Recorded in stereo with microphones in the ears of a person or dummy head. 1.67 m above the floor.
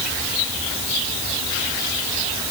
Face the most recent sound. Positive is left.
No sound to turn to.